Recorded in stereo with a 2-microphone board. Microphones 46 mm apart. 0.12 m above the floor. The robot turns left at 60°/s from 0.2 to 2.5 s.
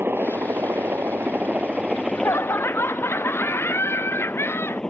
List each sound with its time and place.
0.0 s a helicopter: 60° right; by 4.9 s 165° left
1.9 s laughter: 100° left; by 4.8 s 65° left